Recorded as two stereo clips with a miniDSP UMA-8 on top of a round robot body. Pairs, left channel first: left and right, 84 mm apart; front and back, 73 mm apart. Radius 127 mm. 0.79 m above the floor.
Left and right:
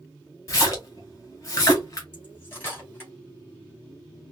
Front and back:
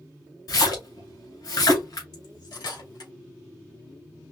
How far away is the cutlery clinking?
About 2.5 m.